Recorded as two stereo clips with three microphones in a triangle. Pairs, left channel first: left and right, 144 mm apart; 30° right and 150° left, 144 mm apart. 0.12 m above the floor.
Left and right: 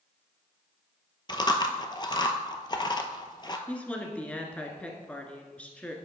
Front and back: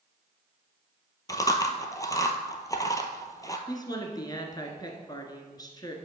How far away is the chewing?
About 0.8 m.